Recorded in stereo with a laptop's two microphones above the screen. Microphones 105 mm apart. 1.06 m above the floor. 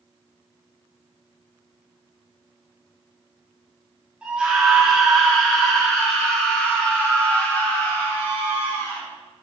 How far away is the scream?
About 3 m.